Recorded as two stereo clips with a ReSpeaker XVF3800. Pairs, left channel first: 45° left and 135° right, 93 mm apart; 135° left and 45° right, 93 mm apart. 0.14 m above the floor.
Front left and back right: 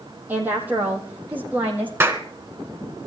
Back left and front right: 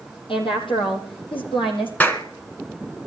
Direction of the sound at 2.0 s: 170° right.